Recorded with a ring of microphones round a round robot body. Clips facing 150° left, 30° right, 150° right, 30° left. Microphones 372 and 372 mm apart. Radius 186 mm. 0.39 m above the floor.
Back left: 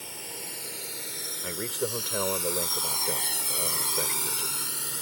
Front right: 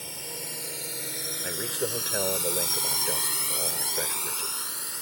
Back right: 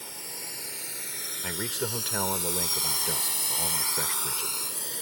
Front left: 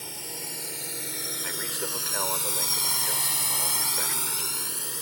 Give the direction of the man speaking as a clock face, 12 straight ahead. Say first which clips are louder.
Even, back right 5 dB; 4 o'clock.